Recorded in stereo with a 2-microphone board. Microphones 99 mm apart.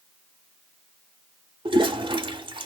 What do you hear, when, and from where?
1.6 s a toilet flushing: 60° right (ahead or behind), 0.6 m